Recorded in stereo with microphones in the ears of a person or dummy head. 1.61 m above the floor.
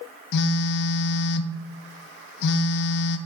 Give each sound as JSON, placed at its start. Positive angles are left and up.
{"t": 0.3, "sound": "a phone buzzing", "side_deg": 65, "distance_m": 0.5}